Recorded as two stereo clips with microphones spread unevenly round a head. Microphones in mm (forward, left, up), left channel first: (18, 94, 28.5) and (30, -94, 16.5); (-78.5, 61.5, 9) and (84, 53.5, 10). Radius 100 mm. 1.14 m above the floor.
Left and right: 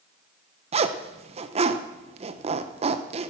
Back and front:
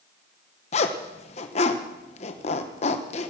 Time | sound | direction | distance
0.7 | a zipper | 135° right | 0.8 m